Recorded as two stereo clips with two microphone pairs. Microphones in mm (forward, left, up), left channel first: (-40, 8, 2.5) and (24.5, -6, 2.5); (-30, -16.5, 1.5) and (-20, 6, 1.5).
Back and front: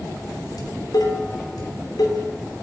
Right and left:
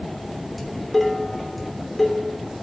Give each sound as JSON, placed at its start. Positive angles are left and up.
{"t": 0.6, "sound": "dishes clattering", "azimuth_deg": 160, "distance_m": 3.0}